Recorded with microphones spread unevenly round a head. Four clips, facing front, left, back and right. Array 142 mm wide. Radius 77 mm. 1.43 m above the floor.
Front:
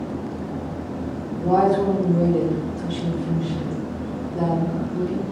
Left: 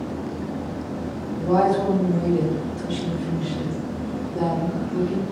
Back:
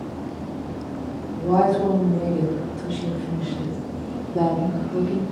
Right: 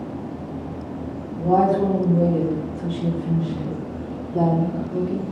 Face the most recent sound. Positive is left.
turn(degrees=-165)